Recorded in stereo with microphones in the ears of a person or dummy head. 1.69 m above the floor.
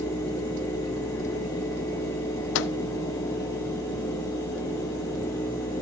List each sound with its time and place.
2.5 s a microwave: 70° left (ahead or behind), 0.6 m